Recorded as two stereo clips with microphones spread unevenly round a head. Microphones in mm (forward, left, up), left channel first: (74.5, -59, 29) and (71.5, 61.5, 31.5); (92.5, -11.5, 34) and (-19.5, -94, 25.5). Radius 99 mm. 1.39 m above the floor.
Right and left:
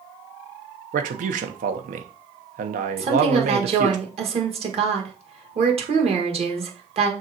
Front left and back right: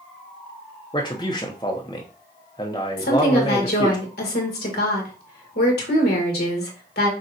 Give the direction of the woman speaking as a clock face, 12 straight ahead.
10 o'clock.